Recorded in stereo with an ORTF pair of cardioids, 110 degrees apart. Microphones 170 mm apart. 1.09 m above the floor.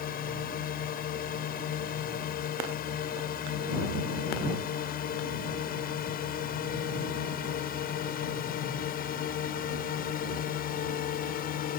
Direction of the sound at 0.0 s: 65° left.